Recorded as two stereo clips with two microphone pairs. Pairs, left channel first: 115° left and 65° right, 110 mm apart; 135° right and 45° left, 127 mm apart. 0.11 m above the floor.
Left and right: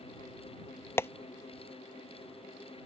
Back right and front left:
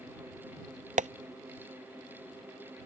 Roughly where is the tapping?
Ahead left.